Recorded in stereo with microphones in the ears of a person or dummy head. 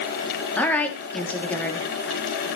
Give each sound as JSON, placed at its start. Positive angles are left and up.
{"t": 0.6, "sound": "a woman speaking", "side_deg": 10, "distance_m": 3.5}